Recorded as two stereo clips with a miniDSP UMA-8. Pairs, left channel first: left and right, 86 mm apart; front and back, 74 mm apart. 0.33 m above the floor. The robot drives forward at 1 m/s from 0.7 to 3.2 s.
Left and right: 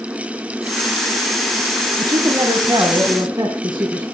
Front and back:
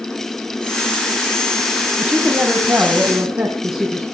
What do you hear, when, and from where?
2.0 s a woman speaking: 115° right, 2 m; by 4.0 s 140° right, 3 m